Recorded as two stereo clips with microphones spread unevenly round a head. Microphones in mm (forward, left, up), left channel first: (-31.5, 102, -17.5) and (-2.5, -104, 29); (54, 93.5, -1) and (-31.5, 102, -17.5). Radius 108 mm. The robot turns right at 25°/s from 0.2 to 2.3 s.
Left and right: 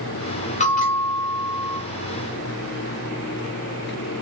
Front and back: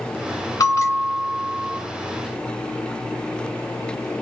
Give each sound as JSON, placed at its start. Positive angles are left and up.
{"t": 0.6, "sound": "a bell", "azimuth_deg": 35, "distance_m": 1.2}